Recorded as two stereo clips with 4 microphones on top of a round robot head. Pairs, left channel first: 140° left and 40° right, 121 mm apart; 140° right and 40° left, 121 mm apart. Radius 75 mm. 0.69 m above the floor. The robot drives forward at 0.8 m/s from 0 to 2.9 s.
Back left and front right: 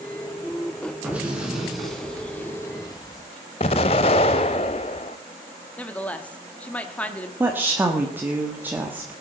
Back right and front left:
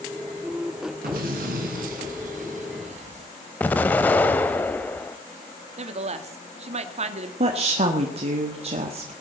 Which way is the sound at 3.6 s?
150° left.